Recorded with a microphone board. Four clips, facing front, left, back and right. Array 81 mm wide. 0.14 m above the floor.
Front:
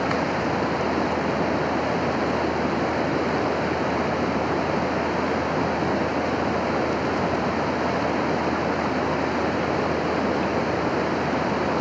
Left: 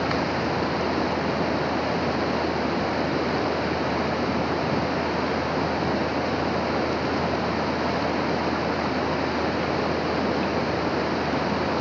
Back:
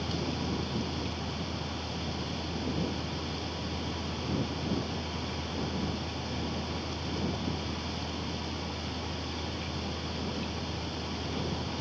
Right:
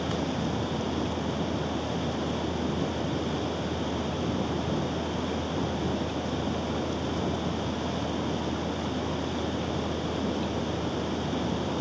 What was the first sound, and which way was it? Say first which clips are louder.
Running water: left 5 dB, front 11 dB; 30° left.